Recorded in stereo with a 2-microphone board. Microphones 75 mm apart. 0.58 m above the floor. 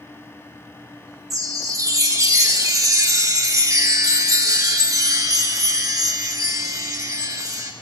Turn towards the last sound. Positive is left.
turn(degrees=-50)  # may be behind; listen again after turning